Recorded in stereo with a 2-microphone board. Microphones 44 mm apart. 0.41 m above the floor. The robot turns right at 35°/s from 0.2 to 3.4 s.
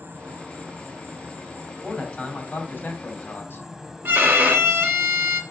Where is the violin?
60° right (ahead or behind), 1.7 m.